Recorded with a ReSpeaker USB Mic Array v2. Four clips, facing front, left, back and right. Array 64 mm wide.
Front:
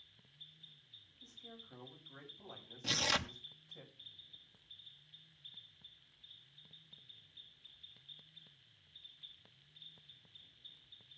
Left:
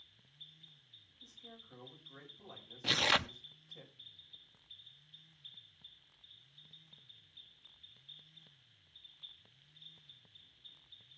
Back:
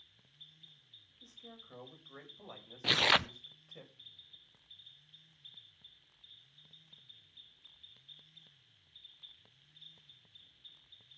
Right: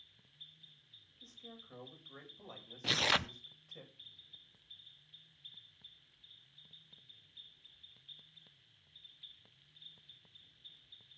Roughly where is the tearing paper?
Behind.